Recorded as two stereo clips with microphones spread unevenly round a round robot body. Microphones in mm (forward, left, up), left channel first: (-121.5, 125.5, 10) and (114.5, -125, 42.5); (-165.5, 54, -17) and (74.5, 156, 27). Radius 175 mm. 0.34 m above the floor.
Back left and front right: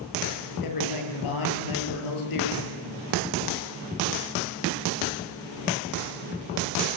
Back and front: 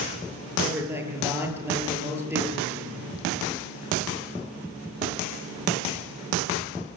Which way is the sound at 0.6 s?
105° left.